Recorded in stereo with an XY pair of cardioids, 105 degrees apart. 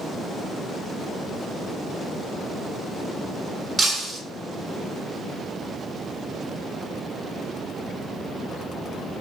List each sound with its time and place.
3.8 s breaking glass: 35° right, 3.5 m